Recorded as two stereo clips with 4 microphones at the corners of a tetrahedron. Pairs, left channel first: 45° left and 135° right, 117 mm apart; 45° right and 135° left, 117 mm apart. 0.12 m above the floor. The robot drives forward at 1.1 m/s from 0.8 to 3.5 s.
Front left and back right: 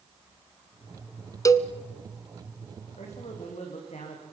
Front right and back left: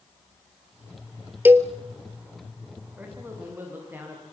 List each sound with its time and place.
1.4 s a cowbell: 75° left, 1.0 m; by 1.7 s 105° left, 1.0 m
3.0 s a man speaking: 60° left, 8.5 m; by 4.2 s 65° left, 8 m